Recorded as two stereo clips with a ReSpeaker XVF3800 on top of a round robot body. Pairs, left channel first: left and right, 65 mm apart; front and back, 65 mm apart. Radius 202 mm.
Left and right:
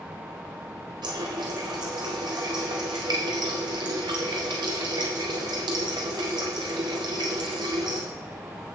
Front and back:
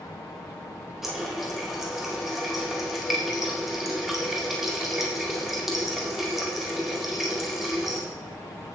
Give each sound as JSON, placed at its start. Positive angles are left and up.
{"t": 1.0, "sound": "a running tap", "azimuth_deg": -95, "distance_m": 1.9}